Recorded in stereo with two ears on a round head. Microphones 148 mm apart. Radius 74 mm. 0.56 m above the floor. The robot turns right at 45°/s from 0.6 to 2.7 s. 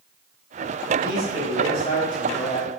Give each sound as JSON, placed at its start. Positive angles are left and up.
{"t": 1.0, "sound": "a man speaking", "azimuth_deg": 65, "distance_m": 1.9}